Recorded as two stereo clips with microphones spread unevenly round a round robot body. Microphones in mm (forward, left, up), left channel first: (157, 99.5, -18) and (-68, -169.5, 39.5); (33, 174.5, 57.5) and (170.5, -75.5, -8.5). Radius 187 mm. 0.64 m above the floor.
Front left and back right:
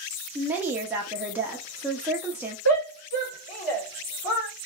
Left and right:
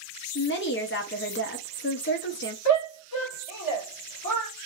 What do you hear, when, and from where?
0.3 s a woman speaking: 130° left, 0.7 m
2.6 s a shout: 95° left, 1.9 m